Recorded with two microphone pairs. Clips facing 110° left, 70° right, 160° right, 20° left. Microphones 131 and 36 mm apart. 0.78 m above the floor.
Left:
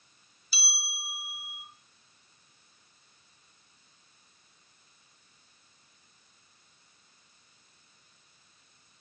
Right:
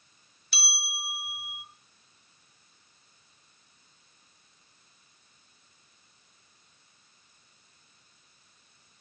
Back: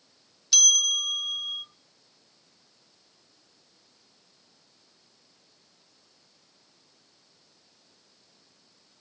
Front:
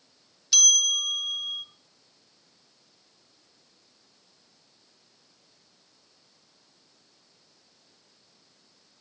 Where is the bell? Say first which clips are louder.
Right 4 dB, even; 65° right, 2.0 m.